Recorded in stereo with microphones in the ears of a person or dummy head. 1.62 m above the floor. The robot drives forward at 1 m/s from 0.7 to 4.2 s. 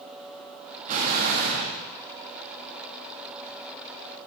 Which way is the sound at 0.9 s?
45° right (ahead or behind).